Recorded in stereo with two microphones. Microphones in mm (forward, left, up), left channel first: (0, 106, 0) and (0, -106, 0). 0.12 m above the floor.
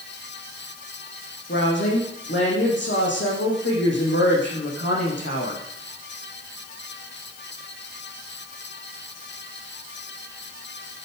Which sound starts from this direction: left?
A woman speaking, at 1.5 s.